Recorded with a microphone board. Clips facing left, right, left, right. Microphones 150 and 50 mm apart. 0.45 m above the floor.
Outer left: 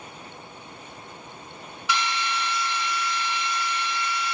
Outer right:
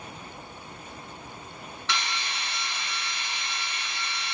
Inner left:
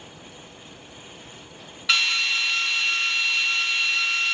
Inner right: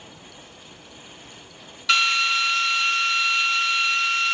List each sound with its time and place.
1.9 s a drill: 10° left (ahead or behind), 3 m